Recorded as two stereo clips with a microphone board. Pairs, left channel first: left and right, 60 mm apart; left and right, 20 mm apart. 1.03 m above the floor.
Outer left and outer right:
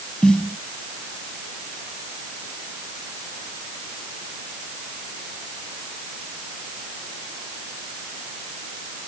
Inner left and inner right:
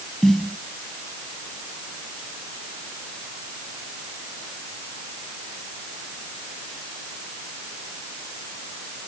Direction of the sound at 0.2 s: 15° left (ahead or behind).